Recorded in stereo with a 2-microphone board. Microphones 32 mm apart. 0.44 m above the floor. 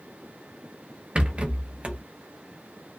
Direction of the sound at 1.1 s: 40° right (ahead or behind).